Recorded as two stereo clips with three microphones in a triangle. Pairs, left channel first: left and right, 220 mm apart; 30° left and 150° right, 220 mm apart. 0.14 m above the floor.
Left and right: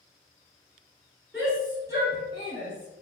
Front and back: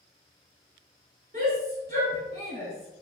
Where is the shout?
175° right, 1.9 m; by 3.0 s 130° right, 1.9 m.